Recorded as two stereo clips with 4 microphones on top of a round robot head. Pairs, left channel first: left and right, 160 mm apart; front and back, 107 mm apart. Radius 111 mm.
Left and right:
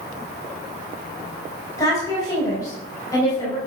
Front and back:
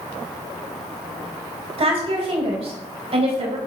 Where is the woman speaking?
160° left, 3 m.